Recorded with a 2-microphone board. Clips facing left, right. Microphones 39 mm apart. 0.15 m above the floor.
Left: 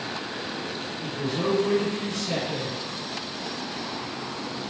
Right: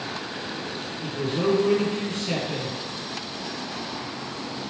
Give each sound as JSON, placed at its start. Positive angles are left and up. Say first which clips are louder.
{"t": 1.0, "sound": "a man speaking", "louder": "right 3 dB", "side_deg": -45, "distance_m": 3.0}